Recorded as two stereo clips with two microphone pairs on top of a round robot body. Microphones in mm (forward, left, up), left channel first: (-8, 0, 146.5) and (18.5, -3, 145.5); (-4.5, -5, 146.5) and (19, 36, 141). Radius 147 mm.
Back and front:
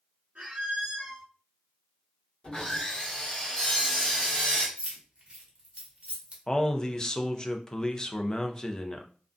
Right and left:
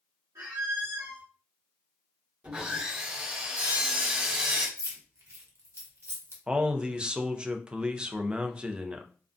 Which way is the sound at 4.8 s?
40° left.